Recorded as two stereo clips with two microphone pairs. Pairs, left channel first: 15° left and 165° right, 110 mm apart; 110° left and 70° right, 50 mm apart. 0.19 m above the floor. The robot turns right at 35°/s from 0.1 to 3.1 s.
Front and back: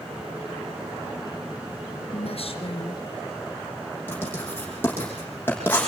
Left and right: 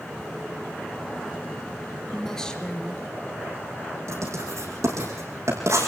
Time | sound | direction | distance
2.1 | a woman speaking | 25° left | 3 m
4.1 | writing | 55° right | 8 m